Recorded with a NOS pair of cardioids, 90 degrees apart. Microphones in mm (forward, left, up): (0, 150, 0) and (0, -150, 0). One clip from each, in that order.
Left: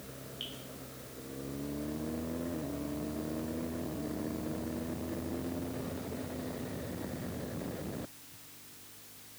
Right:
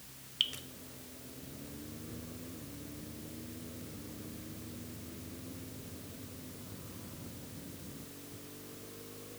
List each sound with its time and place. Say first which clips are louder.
0.4 s dripping: right 10 dB; 65° right, 0.8 m